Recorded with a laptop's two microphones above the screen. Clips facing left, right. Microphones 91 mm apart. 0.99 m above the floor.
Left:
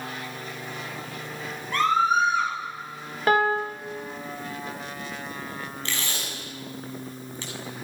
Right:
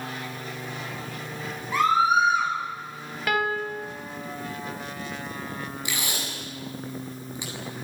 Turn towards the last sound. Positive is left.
turn(degrees=-10)  # may be behind; listen again after turning